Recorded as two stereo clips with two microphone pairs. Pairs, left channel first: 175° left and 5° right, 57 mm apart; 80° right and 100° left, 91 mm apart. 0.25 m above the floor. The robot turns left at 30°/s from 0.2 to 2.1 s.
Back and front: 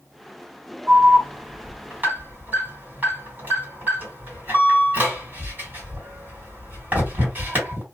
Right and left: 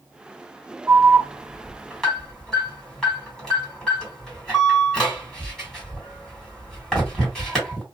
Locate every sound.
0.9 s an alarm: 40° left, 2.5 m; by 7.8 s straight ahead, 2.5 m